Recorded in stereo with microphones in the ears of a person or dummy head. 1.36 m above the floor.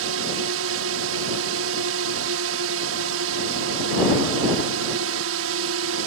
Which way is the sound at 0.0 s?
70° right (ahead or behind).